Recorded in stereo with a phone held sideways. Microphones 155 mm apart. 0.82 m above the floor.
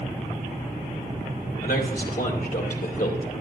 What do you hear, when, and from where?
1.6 s a man speaking: 75° left (ahead or behind), 3 m; by 3.4 s 55° left (ahead or behind), 2 m